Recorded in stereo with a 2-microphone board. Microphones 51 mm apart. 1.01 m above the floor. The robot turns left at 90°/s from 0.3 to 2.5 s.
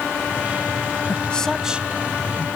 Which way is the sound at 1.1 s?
40° left (ahead or behind).